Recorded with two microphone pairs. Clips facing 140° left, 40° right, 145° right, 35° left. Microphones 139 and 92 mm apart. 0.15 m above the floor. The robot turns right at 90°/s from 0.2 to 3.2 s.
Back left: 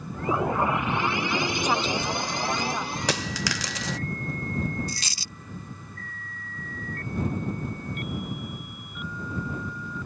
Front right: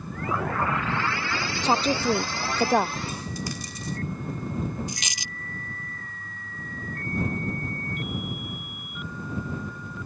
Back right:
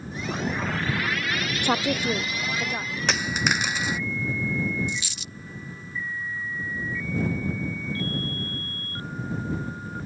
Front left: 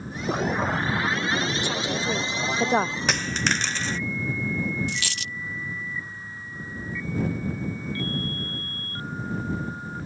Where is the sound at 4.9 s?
35° left.